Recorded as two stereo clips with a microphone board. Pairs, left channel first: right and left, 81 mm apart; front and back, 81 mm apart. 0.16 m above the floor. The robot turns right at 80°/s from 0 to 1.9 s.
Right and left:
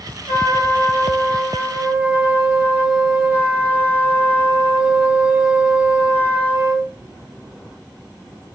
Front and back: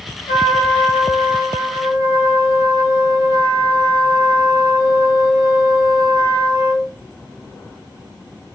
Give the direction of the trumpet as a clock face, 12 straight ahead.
11 o'clock.